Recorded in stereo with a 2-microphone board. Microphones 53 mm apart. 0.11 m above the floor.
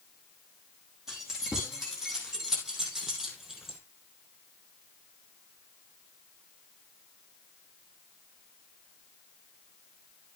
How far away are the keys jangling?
About 4.5 m.